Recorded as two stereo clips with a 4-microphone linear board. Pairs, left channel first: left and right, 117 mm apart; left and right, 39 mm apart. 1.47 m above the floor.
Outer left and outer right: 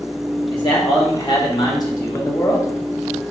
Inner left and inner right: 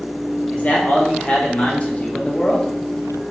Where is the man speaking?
40° left (ahead or behind), 2 m; by 2.7 s 25° left (ahead or behind), 0.9 m.